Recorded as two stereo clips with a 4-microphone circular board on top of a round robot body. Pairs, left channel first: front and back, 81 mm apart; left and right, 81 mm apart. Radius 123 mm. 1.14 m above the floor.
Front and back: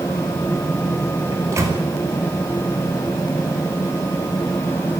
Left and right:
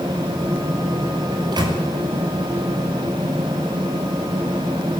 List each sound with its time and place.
1.3 s a microwave: 125° right, 4.5 m